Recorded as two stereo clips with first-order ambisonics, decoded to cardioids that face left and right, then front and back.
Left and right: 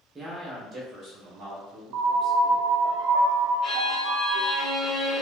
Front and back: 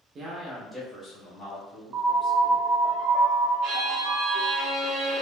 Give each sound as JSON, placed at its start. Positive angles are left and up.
{"t": 0.1, "sound": "a man speaking", "azimuth_deg": -150, "distance_m": 0.9}
{"t": 1.9, "sound": "a piano", "azimuth_deg": -120, "distance_m": 0.5}
{"t": 3.6, "sound": "a violin", "azimuth_deg": 145, "distance_m": 1.0}